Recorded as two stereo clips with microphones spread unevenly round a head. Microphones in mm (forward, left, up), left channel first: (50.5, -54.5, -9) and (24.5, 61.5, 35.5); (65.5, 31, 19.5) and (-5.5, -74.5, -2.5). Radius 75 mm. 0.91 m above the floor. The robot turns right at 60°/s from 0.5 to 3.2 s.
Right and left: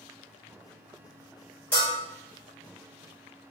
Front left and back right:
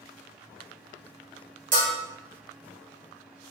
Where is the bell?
155° right, 1.3 m; by 1.9 s 140° right, 1.3 m.